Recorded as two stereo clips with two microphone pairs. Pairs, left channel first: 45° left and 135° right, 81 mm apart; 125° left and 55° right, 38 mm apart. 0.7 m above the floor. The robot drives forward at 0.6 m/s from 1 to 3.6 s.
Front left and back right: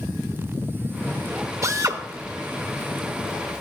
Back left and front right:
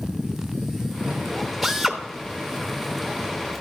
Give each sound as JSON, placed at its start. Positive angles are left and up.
{"t": 1.6, "sound": "a drill", "azimuth_deg": -130, "distance_m": 1.0}